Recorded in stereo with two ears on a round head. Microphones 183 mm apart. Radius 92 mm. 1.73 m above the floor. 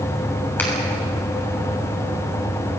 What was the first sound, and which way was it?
A finger snap, 10° left (ahead or behind).